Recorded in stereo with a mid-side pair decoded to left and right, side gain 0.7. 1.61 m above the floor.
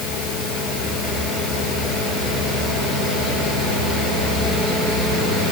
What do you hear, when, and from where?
Only background noise.